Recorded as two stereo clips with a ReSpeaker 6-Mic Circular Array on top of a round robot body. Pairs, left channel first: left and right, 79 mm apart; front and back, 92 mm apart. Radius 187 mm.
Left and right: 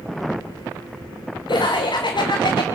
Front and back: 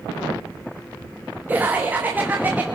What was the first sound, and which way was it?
Laughter, 110° left.